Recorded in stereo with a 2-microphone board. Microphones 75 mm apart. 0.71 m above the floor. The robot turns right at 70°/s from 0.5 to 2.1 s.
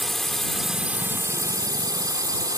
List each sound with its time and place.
0.0 s a drone: 175° left; by 2.6 s 75° right